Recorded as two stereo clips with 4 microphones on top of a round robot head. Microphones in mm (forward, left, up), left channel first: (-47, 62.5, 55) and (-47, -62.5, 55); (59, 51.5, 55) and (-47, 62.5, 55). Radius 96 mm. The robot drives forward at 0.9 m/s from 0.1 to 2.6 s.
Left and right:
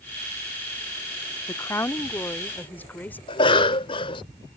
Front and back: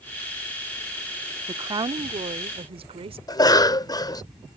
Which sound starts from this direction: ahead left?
A cough, at 3.3 s.